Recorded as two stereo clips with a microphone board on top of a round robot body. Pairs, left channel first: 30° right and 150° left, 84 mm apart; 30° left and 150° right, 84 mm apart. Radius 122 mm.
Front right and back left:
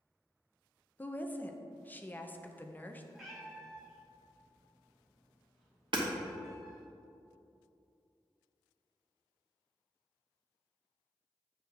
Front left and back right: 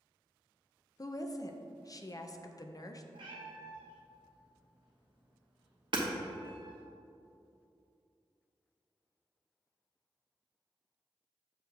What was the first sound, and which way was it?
A woman speaking, 30° left.